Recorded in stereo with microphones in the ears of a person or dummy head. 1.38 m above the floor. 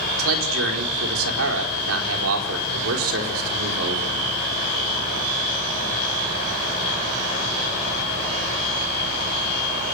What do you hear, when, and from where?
0.2 s a man speaking: 80° right, 5 m